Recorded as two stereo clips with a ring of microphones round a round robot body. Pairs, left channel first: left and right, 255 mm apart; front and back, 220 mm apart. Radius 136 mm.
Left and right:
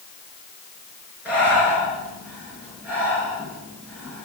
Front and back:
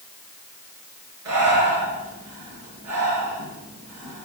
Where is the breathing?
175° right, 6 m.